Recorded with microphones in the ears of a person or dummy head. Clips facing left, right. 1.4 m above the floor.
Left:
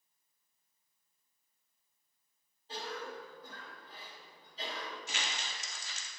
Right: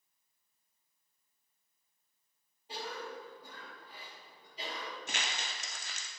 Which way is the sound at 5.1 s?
45° right (ahead or behind).